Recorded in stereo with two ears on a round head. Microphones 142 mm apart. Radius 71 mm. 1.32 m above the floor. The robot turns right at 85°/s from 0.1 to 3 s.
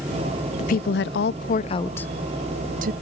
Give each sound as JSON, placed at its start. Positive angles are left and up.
{"t": 0.6, "sound": "a woman speaking", "side_deg": 45, "distance_m": 0.5}